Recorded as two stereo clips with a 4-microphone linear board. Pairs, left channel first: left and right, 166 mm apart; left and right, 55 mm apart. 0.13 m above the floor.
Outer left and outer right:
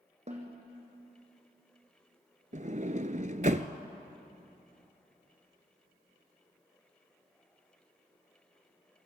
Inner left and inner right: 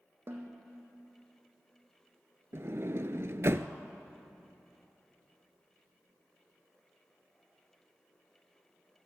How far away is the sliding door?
About 0.9 m.